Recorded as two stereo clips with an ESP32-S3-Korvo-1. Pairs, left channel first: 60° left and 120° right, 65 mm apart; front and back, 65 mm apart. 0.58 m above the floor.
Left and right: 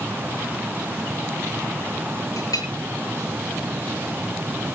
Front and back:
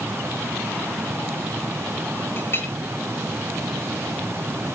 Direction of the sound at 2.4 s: 50° left.